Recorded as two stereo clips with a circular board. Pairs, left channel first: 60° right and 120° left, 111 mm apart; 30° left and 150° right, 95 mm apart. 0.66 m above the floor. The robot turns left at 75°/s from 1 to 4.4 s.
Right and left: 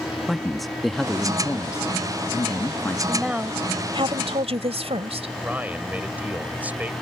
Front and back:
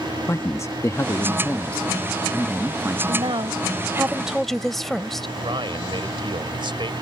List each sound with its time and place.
0.3 s a man speaking: 30° left; by 3.0 s 120° right
3.1 s a woman speaking: 145° right; by 5.3 s 120° left
5.4 s a man speaking: 165° right